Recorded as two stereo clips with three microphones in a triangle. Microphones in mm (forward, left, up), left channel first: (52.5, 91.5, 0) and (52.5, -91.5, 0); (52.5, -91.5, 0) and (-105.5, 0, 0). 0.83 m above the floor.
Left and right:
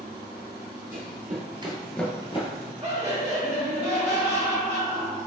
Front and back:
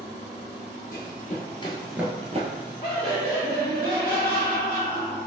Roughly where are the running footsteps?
Ahead right.